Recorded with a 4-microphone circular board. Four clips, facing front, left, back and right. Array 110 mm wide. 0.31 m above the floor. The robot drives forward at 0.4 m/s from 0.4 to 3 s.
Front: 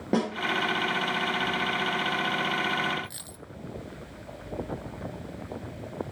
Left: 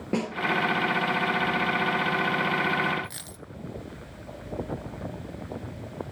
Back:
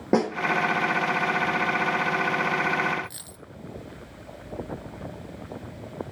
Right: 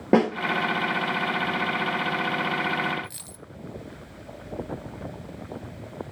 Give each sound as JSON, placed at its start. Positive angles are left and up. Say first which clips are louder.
{"t": 0.1, "sound": "a snare drum", "louder": "right 9 dB, back 4 dB", "azimuth_deg": -110, "distance_m": 1.7}
{"t": 3.0, "sound": "a dropped coin", "louder": "left 1 dB, back 2 dB", "azimuth_deg": 90, "distance_m": 0.6}